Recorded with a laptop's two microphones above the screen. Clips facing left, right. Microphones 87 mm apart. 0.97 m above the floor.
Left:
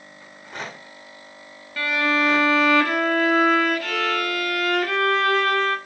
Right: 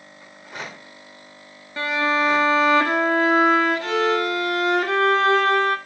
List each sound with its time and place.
0.2 s a rattle: centre (ahead or behind), 1.7 m
1.8 s a violin: 25° right (ahead or behind), 1.0 m